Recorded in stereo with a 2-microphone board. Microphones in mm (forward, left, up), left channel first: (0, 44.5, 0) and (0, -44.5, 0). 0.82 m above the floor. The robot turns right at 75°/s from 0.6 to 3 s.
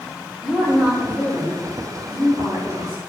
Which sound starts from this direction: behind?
A woman speaking, at 0.4 s.